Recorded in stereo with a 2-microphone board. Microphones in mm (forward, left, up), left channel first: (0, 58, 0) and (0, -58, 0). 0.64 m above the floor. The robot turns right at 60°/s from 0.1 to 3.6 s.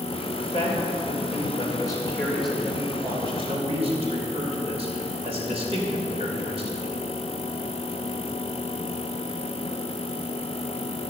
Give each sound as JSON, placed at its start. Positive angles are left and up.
{"t": 0.4, "sound": "a man speaking", "azimuth_deg": 55, "distance_m": 3.0}